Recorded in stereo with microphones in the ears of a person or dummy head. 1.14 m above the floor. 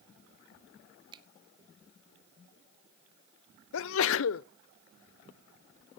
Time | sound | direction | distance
1.1 | a finger snap | 20° right (ahead or behind) | 0.9 m
3.7 | a sneeze | 65° left (ahead or behind) | 0.7 m